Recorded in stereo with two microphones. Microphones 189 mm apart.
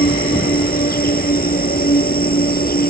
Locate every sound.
0.0 s an insect: 50° left (ahead or behind)